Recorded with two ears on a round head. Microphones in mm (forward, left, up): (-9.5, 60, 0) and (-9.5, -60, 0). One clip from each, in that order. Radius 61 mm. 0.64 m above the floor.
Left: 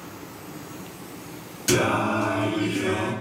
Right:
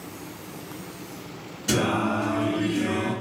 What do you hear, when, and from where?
1.7 s singing: 70° left (ahead or behind), 1.8 m